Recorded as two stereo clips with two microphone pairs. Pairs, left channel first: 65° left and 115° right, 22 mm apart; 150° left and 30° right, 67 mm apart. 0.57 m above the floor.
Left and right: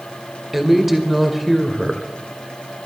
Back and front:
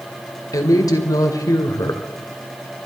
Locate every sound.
0.5 s a woman speaking: 160° left, 2.5 m